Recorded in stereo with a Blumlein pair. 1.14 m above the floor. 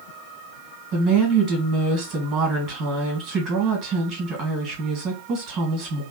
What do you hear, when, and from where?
0.9 s a woman speaking: 30° right, 2 m